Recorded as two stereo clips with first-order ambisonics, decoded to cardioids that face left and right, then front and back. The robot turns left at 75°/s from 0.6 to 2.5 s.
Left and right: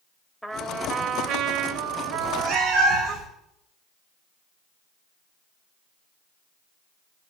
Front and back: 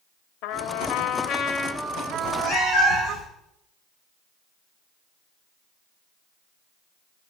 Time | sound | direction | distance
0.4 | a trumpet | straight ahead | 0.9 m
2.1 | a cat meowing | 5° right | 4.5 m